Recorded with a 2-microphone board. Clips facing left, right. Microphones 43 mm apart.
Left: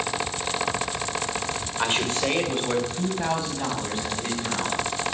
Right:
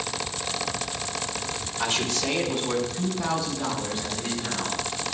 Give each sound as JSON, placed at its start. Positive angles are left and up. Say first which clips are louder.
{"t": 1.8, "sound": "a man speaking", "louder": "left 2 dB", "side_deg": 40, "distance_m": 2.5}